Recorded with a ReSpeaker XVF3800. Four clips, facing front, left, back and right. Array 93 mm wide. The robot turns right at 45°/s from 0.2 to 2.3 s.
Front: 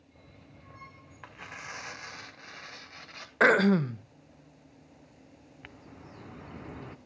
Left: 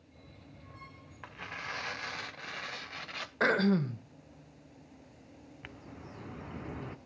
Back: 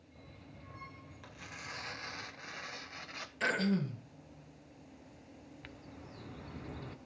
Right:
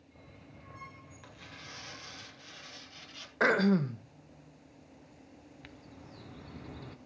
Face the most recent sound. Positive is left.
turn(degrees=55)